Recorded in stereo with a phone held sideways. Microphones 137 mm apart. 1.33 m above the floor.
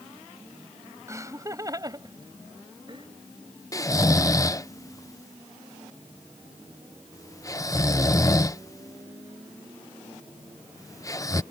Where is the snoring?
25° left (ahead or behind).